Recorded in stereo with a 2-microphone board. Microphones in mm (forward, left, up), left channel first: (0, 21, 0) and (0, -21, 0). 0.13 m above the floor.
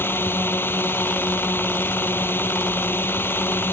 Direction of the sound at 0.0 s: 60° left (ahead or behind).